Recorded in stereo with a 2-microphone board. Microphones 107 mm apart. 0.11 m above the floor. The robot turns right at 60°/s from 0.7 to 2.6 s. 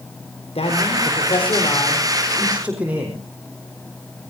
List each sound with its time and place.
0.6 s a man speaking: 80° left, 4.5 m; by 3.2 s 165° right, 4.5 m